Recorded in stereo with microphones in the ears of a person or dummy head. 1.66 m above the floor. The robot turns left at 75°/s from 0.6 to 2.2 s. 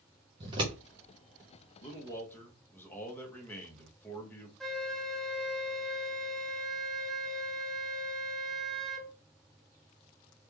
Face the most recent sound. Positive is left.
turn(degrees=0)  # may be behind; listen again after turning